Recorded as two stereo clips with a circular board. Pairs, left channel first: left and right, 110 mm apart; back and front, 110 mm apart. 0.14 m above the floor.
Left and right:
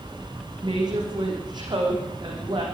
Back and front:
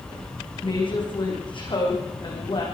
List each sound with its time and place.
0.6 s a woman speaking: 140° right, 7.5 m